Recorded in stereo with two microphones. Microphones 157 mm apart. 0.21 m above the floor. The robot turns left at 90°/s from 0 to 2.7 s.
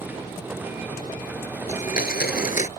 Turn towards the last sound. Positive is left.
turn(degrees=45)